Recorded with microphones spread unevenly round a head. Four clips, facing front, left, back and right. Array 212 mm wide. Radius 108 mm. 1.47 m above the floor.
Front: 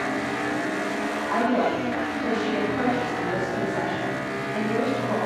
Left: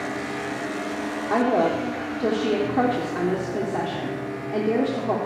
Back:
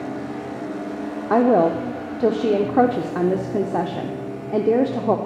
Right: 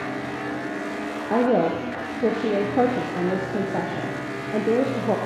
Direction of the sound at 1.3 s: 160° right.